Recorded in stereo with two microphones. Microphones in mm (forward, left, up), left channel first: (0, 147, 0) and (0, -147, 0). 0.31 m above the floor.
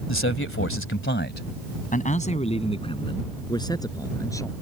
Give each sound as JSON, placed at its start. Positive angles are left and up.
{"t": 0.1, "sound": "a man speaking", "side_deg": 40}